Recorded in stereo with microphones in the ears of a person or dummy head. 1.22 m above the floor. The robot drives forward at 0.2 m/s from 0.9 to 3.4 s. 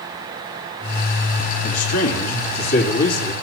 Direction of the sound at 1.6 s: 55° left (ahead or behind).